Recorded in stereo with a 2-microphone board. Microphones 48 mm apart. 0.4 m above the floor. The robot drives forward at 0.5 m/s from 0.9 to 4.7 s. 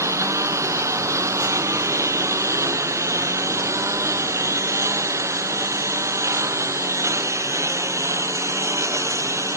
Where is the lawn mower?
90° right; by 9.6 s 80° right.